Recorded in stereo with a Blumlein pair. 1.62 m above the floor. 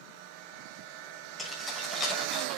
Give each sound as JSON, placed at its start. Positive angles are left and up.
{"t": 1.4, "sound": "keys jangling", "azimuth_deg": 10, "distance_m": 7.0}